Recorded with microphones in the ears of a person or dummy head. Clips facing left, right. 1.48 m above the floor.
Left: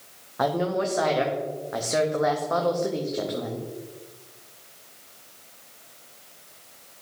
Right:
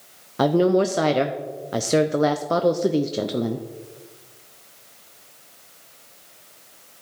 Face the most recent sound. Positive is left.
turn(degrees=-40)  # may be behind; listen again after turning